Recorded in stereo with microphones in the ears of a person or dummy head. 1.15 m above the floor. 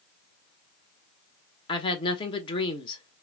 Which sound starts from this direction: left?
A woman speaking, at 1.7 s.